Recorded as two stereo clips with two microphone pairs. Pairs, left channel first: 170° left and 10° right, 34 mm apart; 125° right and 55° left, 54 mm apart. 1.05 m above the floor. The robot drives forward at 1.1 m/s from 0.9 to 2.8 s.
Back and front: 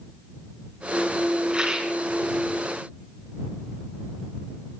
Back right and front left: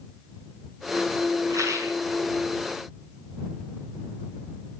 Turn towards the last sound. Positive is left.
turn(degrees=55)